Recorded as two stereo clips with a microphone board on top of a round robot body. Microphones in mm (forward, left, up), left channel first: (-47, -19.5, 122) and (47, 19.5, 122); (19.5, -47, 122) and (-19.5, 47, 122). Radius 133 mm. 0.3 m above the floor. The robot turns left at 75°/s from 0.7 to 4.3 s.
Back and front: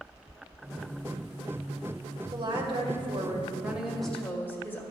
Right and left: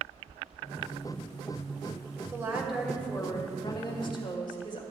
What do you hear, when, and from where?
2.3 s a woman speaking: 60° left, 2 m; by 4.8 s 90° right, 2 m